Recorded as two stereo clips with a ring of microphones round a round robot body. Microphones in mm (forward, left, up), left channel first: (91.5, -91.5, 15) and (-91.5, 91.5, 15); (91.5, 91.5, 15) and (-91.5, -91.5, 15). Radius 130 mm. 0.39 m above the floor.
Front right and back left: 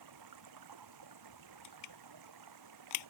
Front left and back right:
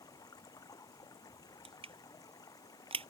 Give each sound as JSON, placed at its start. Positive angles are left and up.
{"t": 0.0, "sound": "running water", "azimuth_deg": 120}
{"t": 1.6, "sound": "crushing", "azimuth_deg": -65}